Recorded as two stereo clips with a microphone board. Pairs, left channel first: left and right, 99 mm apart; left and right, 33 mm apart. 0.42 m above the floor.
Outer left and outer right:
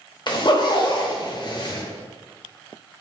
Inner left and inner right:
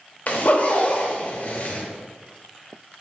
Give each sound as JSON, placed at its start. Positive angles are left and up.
{"t": 0.3, "sound": "a zipper", "side_deg": 45, "distance_m": 0.7}